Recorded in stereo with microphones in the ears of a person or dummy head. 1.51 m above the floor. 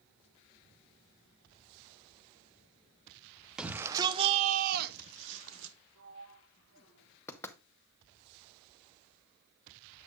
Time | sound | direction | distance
3.6 | a shout | 5° right (ahead or behind) | 0.9 m
6.0 | a sliding door | 75° right (ahead or behind) | 2 m
7.3 | knocking | 15° left (ahead or behind) | 0.8 m